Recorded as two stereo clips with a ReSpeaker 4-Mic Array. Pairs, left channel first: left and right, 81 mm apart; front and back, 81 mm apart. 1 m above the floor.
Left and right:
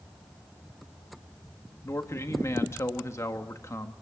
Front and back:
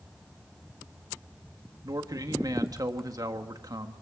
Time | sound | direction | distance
1.8 | a man speaking | 145° left | 1.5 m